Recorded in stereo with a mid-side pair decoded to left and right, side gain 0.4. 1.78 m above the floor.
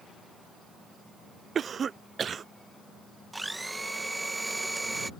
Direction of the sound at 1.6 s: 55° right.